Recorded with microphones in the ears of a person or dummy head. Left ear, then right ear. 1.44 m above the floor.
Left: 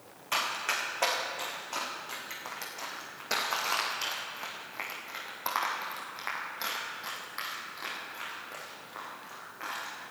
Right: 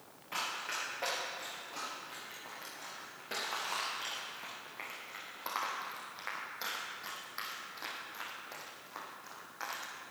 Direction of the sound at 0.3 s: 50° left (ahead or behind).